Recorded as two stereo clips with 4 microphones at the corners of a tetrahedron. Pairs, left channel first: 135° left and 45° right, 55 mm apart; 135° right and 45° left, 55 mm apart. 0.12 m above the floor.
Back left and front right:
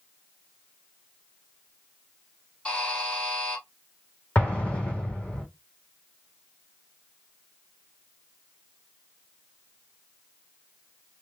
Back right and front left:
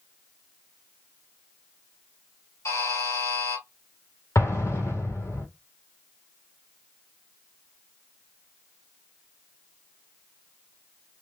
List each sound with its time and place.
2.6 s a buzzer: 155° right, 3.5 m
4.3 s an explosion: 160° right, 1.7 m